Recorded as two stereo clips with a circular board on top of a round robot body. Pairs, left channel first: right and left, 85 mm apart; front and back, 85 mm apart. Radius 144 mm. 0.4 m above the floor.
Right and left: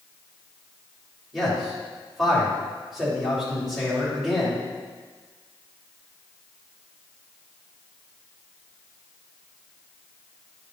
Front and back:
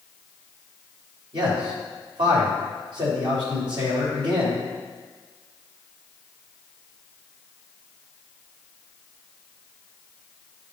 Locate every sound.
1.3 s a man speaking: straight behind, 3 m